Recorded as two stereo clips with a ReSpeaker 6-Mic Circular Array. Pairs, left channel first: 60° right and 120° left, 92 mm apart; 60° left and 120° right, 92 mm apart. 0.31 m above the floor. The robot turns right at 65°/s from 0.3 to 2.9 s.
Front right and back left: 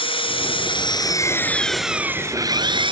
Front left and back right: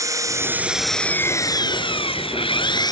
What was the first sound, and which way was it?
An engine running, 65° right.